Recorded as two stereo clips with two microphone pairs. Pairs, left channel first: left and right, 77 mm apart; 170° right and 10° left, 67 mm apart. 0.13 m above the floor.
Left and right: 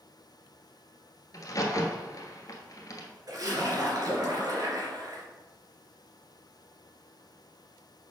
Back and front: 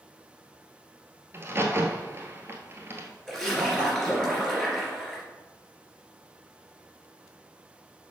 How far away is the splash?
About 2.5 m.